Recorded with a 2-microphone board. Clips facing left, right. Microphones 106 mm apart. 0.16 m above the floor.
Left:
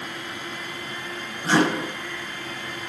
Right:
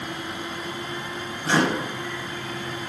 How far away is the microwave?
About 2 m.